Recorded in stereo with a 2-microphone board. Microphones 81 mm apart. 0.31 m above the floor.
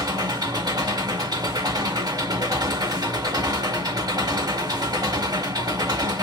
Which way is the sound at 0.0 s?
60° right (ahead or behind).